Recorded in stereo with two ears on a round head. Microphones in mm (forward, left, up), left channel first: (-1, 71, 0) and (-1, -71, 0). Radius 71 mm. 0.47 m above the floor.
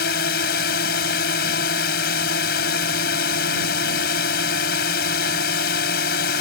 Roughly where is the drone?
Left.